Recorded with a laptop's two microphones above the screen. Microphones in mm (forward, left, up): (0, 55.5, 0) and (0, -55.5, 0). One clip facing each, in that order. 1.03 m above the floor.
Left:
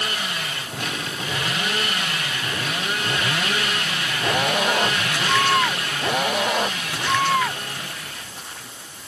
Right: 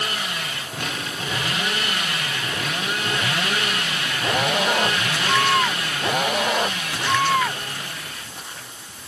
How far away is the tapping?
No tapping in this recording.